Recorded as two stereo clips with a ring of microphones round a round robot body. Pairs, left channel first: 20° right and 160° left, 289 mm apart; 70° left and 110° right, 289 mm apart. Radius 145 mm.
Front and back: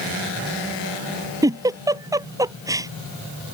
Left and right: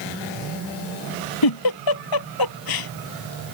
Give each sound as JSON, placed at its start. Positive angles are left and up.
{"t": 1.4, "sound": "a giggle", "azimuth_deg": 80}